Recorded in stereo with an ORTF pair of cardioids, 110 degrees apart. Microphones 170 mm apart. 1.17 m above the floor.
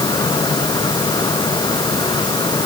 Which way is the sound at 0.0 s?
25° left.